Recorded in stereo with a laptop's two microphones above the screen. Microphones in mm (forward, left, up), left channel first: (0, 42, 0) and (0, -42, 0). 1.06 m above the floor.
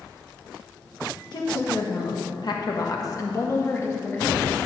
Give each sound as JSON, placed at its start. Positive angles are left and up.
{"t": 1.3, "sound": "a woman speaking", "side_deg": 60, "distance_m": 1.3}